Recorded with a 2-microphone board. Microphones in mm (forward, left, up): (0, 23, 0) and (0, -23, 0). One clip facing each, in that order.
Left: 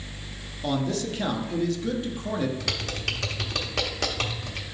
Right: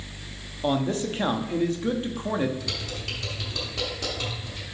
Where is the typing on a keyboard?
80° left, 1.1 m.